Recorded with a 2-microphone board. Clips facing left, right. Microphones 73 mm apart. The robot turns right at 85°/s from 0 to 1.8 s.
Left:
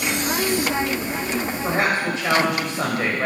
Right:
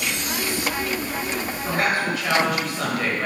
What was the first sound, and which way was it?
A woman speaking, 35° left (ahead or behind).